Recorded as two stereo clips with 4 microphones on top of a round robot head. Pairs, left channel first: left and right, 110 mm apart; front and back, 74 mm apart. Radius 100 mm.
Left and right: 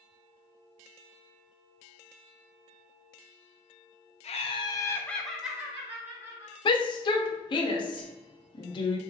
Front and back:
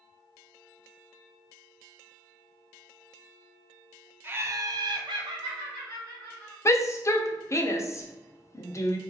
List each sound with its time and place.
4.2 s laughter: 115° left, 0.8 m; by 6.5 s 155° right, 1.9 m
6.7 s a shout: 45° left, 0.7 m